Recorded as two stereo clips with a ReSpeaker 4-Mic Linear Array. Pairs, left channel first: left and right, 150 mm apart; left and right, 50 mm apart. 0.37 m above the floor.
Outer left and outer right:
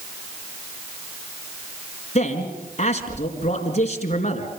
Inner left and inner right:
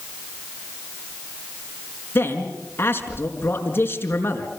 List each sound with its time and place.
2.1 s a man speaking: 45° left (ahead or behind), 4.5 m